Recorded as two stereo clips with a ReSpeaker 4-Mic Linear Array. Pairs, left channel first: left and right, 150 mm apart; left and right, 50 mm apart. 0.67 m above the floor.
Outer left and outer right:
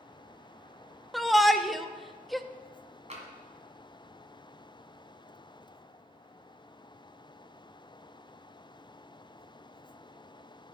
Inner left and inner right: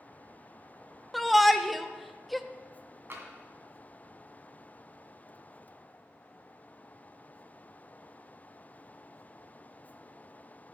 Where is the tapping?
45° right (ahead or behind), 1.8 m.